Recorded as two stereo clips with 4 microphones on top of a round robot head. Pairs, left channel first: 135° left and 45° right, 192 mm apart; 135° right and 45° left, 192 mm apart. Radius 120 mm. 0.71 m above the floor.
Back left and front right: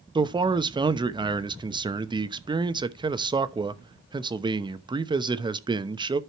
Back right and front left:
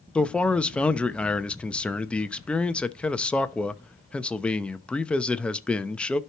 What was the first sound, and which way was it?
A man speaking, 55° right.